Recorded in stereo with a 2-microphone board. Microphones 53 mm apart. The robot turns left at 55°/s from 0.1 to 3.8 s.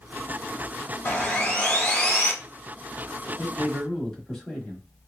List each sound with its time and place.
1.1 s sawing: 25° left (ahead or behind), 1.2 m
3.4 s a man speaking: 15° left (ahead or behind), 1.0 m; by 4.8 s 10° left (ahead or behind), 1.0 m